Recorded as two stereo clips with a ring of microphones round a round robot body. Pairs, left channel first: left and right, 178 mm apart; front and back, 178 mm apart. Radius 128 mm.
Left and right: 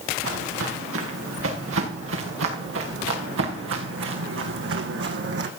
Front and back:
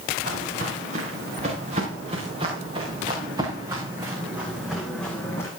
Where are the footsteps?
115° right, 4 m; by 5.5 s 80° right, 1.5 m.